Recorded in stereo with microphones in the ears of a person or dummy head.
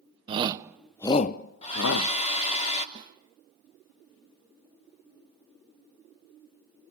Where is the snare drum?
20° right (ahead or behind), 2 m.